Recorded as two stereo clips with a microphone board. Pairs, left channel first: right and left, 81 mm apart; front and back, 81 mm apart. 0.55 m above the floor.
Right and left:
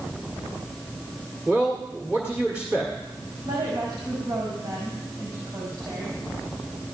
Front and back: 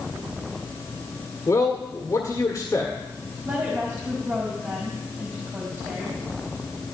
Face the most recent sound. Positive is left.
turn(degrees=110)